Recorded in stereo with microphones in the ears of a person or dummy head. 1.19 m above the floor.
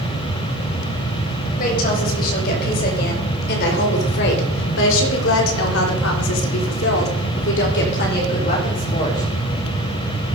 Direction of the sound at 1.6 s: 50° left (ahead or behind).